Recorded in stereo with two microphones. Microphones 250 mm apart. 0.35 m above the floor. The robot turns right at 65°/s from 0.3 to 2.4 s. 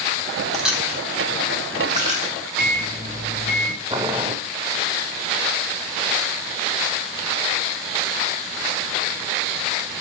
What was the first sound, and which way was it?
Chewing, centre (ahead or behind).